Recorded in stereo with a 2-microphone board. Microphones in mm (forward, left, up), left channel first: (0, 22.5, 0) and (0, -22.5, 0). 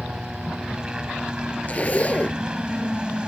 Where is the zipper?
30° left (ahead or behind).